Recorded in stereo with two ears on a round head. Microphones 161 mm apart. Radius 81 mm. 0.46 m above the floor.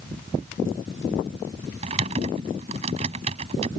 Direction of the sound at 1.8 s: 35° right (ahead or behind).